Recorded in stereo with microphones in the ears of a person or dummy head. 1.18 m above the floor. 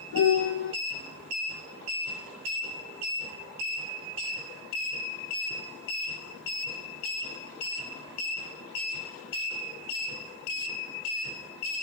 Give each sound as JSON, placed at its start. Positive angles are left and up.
{"t": 0.1, "sound": "a piano", "side_deg": 70, "distance_m": 6.0}